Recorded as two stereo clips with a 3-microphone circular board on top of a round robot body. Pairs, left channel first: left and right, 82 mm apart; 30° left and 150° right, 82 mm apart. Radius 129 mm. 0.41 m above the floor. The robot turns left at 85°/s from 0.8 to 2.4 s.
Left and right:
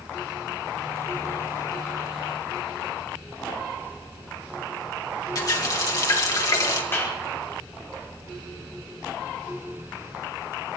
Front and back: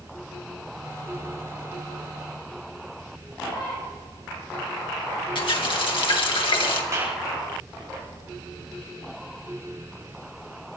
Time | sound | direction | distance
5.3 | a running tap | 45° left | 2.5 m
6.9 | a clap | 155° left | 8.5 m